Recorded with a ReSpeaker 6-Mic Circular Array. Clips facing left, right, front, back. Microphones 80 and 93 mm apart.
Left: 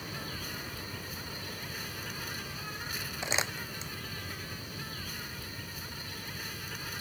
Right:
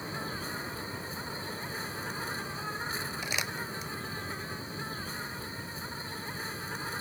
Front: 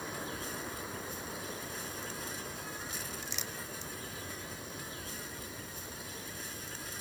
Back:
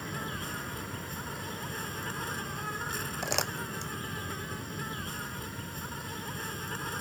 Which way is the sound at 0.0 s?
145° right.